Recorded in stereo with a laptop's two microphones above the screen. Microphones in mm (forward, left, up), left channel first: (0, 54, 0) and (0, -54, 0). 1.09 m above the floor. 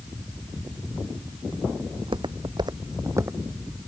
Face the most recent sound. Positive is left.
turn(degrees=-10)  # may be behind; listen again after turning